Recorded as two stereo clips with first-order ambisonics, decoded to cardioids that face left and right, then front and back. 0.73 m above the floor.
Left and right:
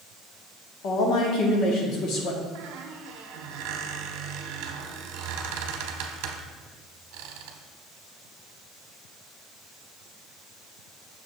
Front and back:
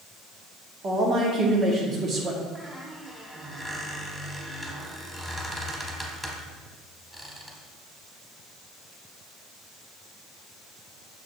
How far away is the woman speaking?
About 1.4 m.